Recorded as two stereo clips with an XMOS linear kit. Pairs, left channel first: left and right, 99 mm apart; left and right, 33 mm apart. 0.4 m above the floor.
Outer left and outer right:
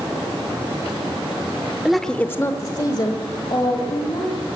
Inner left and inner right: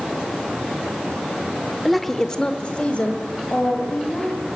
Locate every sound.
1.9 s a woman speaking: 5° right (ahead or behind), 0.8 m; by 4.4 s 50° left (ahead or behind), 2.5 m